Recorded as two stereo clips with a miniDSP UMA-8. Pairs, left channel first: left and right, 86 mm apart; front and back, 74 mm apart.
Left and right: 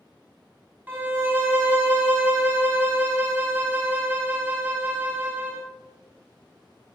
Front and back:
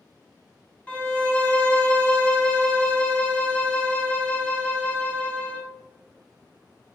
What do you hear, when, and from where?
0.9 s a violin: 45° right, 0.7 m